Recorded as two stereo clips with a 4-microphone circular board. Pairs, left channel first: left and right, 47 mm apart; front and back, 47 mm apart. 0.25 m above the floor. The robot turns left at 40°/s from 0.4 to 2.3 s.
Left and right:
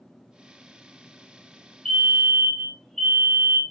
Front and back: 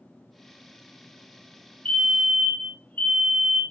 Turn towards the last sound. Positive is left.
turn(degrees=20)